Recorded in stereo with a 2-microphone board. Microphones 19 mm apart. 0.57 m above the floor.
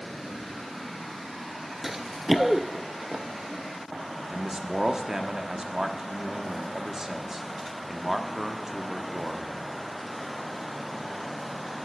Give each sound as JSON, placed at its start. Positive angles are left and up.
{"t": 1.8, "sound": "running footsteps", "side_deg": -20, "distance_m": 0.5}
{"t": 4.3, "sound": "a man speaking", "side_deg": -25, "distance_m": 1.0}